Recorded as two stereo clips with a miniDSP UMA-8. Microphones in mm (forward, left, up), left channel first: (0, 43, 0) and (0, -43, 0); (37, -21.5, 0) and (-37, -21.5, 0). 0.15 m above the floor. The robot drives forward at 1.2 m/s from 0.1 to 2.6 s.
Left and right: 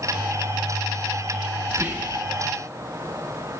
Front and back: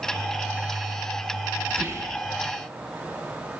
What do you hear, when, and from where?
1.7 s whispering: 135° right, 1.2 m; by 2.2 s 155° right, 1.6 m